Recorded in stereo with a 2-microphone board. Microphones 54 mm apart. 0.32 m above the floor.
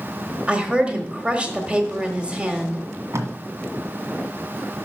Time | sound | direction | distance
0.5 | a woman speaking | 20° right (ahead or behind) | 1.3 m
3.1 | tape being pulled | 60° right (ahead or behind) | 1.7 m